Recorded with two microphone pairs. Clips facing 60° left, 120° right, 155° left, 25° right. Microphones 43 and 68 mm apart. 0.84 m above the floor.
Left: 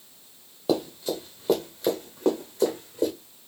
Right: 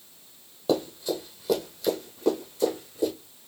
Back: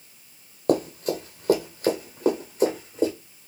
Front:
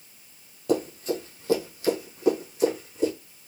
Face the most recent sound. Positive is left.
turn(degrees=100)